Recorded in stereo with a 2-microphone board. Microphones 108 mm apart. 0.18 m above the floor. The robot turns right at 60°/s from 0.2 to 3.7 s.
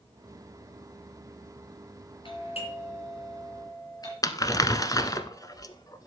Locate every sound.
2.2 s a doorbell: 50° left (ahead or behind), 4 m; by 4.1 s 35° left (ahead or behind), 4 m
4.2 s crumpling: 35° left (ahead or behind), 0.9 m